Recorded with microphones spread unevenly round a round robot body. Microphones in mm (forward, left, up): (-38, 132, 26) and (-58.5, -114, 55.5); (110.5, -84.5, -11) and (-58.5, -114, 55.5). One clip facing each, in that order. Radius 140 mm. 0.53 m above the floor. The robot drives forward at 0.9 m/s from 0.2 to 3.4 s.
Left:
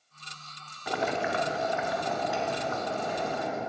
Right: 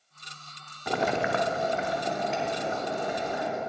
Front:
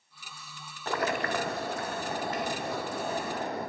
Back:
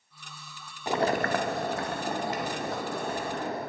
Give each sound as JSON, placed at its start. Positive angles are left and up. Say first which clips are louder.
{"t": 0.9, "sound": "boiling", "louder": "right 3 dB, back 4 dB", "azimuth_deg": -95, "distance_m": 0.5}